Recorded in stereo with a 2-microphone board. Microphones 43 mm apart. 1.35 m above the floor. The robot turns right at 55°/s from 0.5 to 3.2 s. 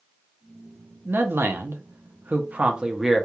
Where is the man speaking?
120° right, 0.6 m; by 3.3 s straight ahead, 0.6 m.